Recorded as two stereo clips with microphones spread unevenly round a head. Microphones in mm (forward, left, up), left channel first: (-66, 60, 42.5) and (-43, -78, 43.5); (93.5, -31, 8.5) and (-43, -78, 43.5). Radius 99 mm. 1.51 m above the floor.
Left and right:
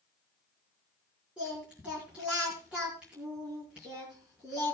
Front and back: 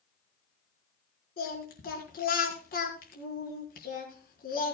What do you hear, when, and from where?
1.4 s singing: 5° left, 4.5 m